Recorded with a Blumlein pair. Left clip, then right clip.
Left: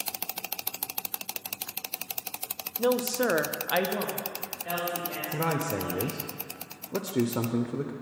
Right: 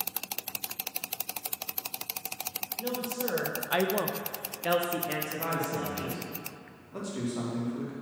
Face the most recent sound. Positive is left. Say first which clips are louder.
# left 6 dB
turn(degrees=45)